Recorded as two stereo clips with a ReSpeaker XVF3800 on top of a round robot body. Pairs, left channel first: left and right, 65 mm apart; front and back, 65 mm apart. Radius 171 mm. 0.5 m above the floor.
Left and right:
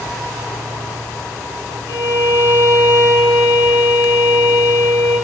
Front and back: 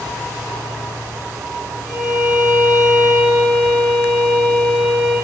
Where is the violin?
10° right, 6 m.